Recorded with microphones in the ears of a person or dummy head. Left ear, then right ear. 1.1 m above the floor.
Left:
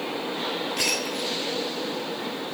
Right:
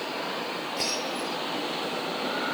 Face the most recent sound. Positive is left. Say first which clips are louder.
# left 3 dB
turn(degrees=40)  # may be behind; listen again after turning